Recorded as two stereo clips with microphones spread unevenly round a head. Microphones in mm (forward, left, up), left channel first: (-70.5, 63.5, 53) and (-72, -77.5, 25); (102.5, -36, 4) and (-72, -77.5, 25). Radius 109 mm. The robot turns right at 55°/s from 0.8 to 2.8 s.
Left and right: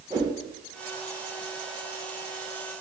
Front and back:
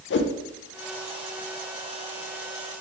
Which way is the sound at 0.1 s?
15° right.